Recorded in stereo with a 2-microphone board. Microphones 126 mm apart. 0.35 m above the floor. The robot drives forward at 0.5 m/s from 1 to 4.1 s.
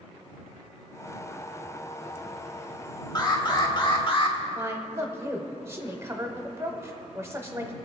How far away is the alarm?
About 1.3 m.